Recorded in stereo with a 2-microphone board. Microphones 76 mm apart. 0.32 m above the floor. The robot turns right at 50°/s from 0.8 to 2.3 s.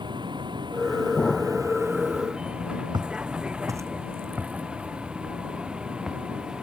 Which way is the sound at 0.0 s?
85° right.